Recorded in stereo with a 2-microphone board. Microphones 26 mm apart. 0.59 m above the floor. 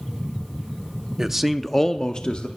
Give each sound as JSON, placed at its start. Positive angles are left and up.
{"t": 1.2, "sound": "a man speaking", "side_deg": -20, "distance_m": 0.6}